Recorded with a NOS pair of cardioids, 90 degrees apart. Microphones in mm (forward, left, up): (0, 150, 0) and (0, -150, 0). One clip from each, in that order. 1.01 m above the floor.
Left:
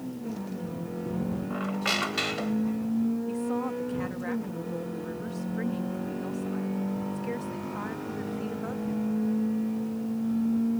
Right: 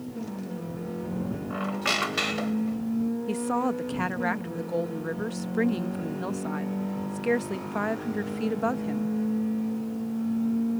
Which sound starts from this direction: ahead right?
A woman speaking, at 3.3 s.